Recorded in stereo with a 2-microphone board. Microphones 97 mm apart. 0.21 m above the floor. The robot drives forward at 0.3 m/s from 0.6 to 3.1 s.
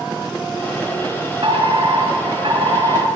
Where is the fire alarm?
70° right (ahead or behind), 6.5 m; by 3.0 s 65° right (ahead or behind), 6.5 m.